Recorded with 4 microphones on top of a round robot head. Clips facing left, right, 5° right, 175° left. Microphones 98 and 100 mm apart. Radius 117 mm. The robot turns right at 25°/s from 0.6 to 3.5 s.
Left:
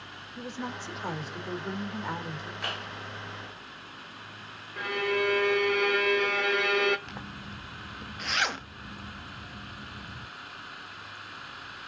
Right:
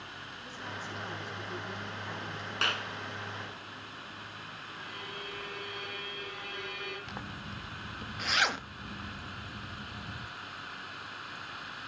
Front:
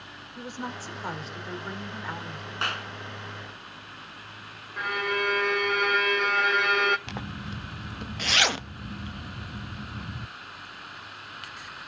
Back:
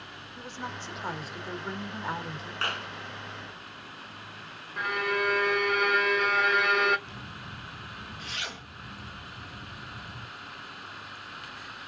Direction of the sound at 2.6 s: 80° right.